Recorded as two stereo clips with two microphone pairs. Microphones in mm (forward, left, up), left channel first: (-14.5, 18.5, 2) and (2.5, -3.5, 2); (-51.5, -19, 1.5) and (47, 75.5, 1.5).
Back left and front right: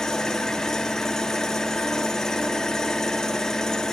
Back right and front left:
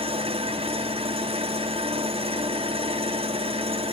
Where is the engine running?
60° left, 1.5 m.